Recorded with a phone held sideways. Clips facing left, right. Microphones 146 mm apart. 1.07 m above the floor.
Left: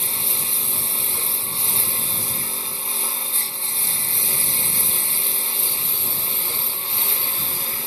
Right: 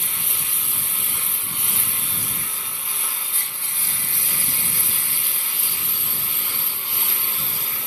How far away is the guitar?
I don't hear a guitar.